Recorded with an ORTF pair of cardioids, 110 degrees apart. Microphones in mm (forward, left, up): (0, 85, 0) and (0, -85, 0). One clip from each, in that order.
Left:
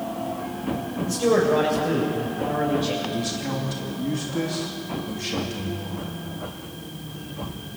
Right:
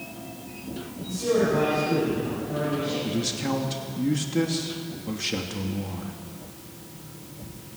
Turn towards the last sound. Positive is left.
turn(degrees=-15)